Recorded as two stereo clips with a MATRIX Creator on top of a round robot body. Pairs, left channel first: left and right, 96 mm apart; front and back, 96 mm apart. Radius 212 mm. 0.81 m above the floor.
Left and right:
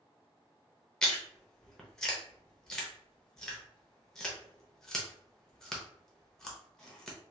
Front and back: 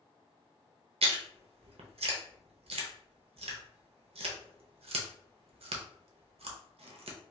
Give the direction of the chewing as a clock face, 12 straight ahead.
6 o'clock.